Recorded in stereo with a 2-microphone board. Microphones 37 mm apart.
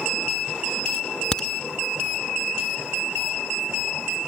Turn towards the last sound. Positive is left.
turn(degrees=20)  # may be behind; listen again after turning